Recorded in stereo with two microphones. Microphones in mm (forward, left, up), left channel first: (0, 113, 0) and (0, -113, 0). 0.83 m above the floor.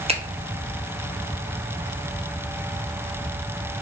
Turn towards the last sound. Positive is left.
turn(degrees=-25)  # may be behind; listen again after turning